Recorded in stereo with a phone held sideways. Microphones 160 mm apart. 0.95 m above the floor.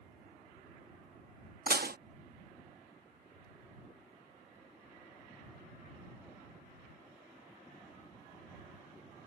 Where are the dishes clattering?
75° right (ahead or behind).